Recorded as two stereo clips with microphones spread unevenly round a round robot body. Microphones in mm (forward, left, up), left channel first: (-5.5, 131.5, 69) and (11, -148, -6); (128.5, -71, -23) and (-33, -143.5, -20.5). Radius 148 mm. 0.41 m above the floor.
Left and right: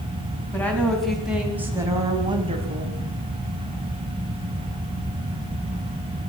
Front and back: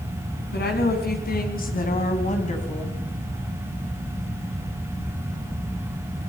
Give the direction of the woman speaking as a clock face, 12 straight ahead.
12 o'clock.